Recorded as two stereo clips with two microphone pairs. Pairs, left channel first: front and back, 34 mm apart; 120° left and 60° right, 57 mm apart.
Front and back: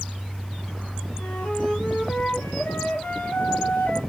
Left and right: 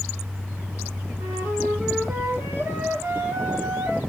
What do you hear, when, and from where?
1.2 s a flute: 25° right, 5.5 m